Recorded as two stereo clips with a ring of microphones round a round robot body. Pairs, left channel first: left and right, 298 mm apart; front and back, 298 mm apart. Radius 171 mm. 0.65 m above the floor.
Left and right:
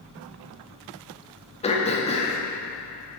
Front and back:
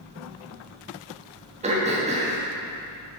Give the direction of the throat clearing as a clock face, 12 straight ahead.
7 o'clock.